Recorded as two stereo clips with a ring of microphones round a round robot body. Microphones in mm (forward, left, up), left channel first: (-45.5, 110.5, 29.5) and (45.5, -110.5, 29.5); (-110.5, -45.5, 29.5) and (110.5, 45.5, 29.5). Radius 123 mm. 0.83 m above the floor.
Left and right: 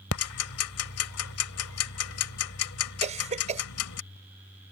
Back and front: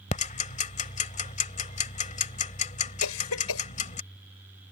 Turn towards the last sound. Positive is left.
turn(degrees=-130)